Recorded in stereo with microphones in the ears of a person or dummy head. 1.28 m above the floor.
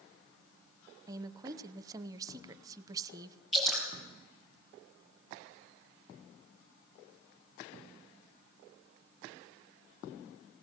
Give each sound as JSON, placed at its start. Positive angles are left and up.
{"t": 1.1, "sound": "a woman speaking", "side_deg": -25, "distance_m": 0.8}
{"t": 3.5, "sound": "dripping", "side_deg": 0, "distance_m": 7.0}